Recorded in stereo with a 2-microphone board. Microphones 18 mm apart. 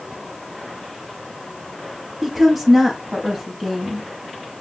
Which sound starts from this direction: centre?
A woman speaking, at 2.2 s.